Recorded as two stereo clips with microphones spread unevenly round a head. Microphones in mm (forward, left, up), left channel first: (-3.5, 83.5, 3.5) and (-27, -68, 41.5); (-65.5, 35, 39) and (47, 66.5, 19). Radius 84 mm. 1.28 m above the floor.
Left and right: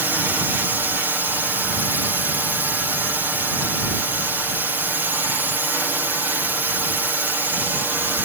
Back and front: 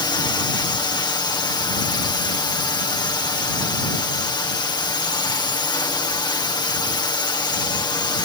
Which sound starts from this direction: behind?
A drone, at 0.0 s.